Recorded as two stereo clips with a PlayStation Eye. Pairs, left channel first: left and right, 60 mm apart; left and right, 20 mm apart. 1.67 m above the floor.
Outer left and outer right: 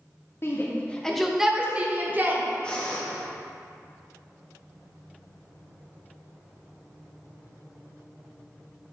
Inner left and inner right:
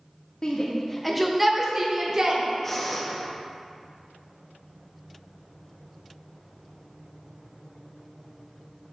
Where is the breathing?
15° left (ahead or behind), 1.1 m.